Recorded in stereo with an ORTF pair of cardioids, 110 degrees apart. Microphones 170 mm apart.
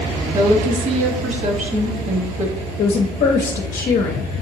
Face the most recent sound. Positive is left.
turn(degrees=50)